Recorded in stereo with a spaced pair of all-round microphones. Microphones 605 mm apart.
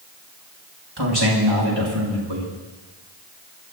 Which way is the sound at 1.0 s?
40° right (ahead or behind).